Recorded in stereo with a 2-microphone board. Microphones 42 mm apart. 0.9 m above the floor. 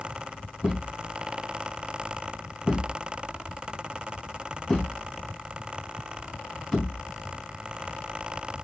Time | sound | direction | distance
0.6 | a thud | 10° left (ahead or behind) | 4 m